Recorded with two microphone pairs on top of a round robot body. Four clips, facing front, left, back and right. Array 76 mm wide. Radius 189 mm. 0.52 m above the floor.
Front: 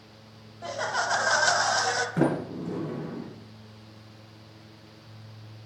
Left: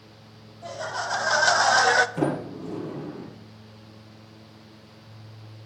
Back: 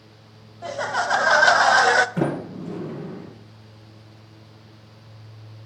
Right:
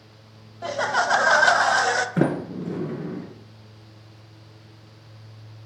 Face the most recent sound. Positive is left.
turn(degrees=-80)